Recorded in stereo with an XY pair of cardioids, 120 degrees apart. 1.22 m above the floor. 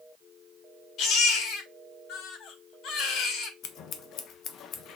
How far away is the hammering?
I don't hear hammering.